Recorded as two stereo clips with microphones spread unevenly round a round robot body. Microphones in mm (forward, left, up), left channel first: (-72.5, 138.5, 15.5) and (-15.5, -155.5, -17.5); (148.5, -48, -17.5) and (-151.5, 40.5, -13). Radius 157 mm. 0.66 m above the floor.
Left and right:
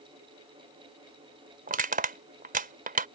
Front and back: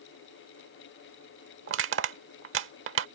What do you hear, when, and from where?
1.7 s crushing: 145° right